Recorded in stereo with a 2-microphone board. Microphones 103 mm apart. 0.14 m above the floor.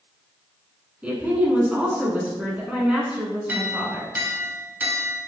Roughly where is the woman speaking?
Centre.